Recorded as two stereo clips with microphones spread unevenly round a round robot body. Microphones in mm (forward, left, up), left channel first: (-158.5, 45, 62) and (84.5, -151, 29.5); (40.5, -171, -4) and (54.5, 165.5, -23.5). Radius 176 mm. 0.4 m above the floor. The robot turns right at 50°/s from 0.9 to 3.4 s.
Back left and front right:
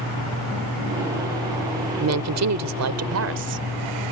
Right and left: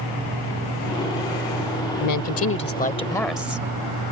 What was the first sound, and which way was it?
A woman speaking, 65° right.